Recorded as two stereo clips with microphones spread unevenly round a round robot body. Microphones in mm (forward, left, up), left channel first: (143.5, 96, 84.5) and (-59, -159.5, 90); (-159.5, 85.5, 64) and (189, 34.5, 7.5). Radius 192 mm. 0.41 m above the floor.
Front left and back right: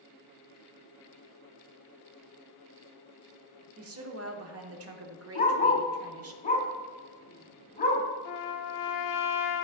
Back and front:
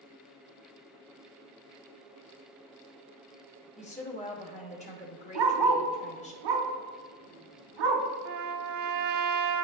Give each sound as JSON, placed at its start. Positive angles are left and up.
{"t": 3.8, "sound": "a woman speaking", "azimuth_deg": -115, "distance_m": 1.1}
{"t": 5.3, "sound": "a dog barking", "azimuth_deg": -15, "distance_m": 1.3}
{"t": 8.2, "sound": "a trumpet", "azimuth_deg": 25, "distance_m": 0.8}